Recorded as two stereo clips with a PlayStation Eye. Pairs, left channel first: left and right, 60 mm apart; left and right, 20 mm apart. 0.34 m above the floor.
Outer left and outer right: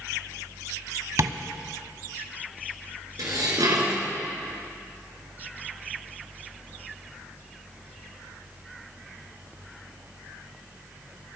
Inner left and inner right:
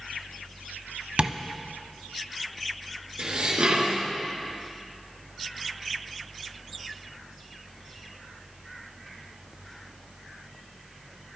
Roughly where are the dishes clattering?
Right.